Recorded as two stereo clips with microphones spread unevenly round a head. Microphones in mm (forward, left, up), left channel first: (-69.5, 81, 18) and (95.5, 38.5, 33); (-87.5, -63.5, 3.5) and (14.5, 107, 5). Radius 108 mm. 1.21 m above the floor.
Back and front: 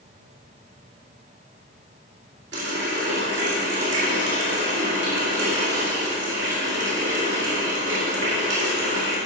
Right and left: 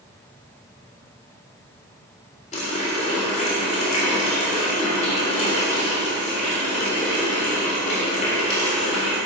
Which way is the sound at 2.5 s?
60° right.